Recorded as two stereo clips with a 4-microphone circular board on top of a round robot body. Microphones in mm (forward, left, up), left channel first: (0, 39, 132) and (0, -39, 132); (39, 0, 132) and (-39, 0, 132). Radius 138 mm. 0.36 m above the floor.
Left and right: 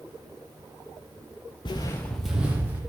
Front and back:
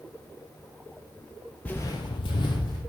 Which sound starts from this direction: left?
Footsteps, at 1.6 s.